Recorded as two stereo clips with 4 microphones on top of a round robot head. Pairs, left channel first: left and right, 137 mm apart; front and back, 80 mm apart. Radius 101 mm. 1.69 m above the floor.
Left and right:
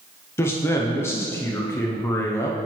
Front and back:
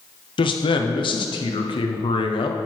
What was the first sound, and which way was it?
A man speaking, 15° left.